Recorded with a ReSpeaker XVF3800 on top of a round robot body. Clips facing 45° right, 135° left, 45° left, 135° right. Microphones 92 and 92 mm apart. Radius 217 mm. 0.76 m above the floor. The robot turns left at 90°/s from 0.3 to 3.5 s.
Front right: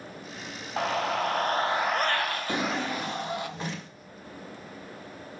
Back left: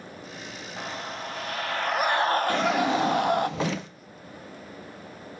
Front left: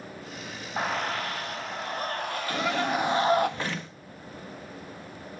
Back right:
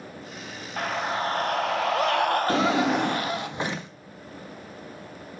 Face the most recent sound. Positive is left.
turn(degrees=150)